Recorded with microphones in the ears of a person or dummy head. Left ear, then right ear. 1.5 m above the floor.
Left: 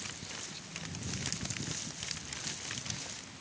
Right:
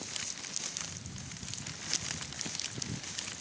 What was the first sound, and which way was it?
Only background noise.